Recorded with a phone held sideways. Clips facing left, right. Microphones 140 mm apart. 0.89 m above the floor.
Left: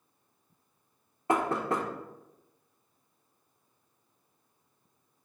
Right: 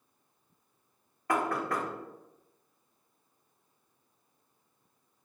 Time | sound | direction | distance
1.3 | knocking | 25° left (ahead or behind) | 0.5 m